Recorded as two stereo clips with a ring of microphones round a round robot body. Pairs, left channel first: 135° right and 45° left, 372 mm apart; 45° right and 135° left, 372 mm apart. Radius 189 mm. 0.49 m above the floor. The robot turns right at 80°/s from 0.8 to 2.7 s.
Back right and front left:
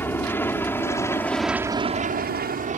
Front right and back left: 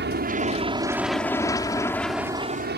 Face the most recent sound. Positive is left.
turn(degrees=100)